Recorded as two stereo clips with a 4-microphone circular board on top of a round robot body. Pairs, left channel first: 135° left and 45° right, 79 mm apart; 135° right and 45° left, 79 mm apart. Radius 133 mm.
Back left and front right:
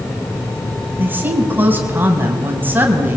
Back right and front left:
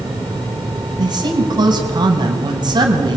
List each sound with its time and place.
1.0 s a woman speaking: 20° left, 5 m